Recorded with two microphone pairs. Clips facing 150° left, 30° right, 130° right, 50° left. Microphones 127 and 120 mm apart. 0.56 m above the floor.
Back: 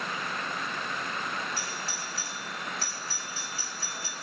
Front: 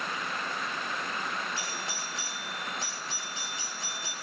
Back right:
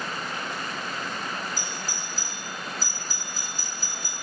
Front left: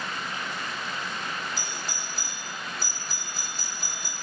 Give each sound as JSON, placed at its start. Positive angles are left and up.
{"t": 1.6, "sound": "a doorbell", "azimuth_deg": 40, "distance_m": 3.0}